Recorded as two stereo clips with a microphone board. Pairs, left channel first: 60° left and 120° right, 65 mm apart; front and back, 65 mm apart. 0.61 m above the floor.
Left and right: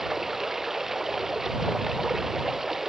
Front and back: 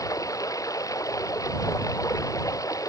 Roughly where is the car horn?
I don't hear a car horn.